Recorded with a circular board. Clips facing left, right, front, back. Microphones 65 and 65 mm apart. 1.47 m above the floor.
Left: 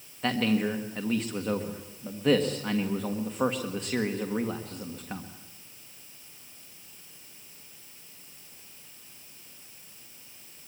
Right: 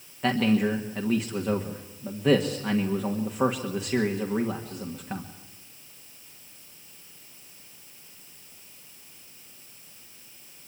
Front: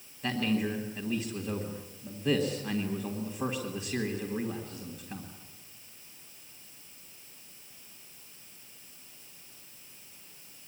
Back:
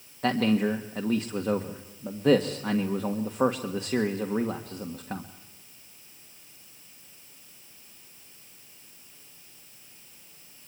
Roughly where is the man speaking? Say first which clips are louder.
Right 3 dB, back 6 dB; behind.